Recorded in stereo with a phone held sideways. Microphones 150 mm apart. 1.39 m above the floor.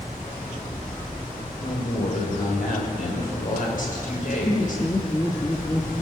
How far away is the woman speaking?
About 6.5 m.